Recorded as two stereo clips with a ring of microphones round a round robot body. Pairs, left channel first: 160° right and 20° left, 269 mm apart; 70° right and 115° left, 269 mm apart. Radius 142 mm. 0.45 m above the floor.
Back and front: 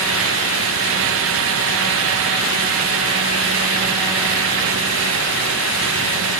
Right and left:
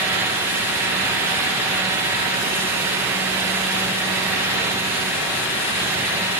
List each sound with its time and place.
Only background noise.